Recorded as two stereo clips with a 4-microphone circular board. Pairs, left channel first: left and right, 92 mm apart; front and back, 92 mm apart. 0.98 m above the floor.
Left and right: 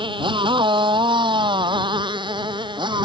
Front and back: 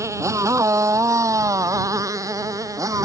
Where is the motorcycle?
120° right; by 3.0 s 125° right.